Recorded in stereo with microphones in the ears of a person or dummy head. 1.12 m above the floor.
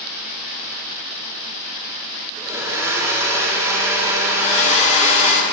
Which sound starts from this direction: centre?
A blender, at 2.4 s.